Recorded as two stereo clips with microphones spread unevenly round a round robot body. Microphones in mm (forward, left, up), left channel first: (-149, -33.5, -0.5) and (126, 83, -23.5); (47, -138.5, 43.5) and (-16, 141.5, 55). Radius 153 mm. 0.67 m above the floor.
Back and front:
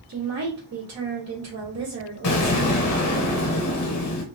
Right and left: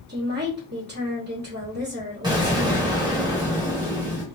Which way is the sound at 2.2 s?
Straight behind.